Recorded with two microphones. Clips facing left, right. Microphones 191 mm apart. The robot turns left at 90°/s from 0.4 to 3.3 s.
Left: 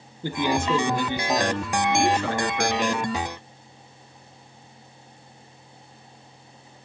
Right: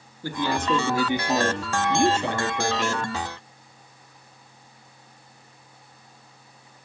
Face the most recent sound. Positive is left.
turn(degrees=135)